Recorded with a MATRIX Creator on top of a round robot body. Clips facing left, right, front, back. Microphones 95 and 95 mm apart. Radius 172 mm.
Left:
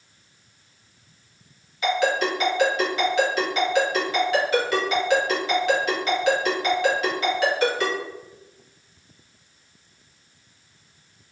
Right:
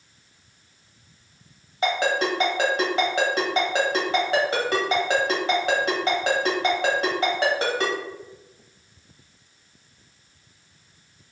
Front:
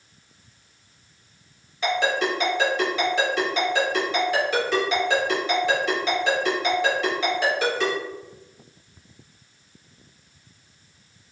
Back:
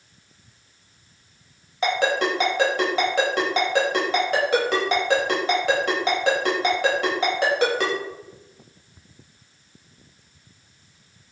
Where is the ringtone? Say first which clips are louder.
Left 1 dB, back 1 dB; 145° right, 1.3 m.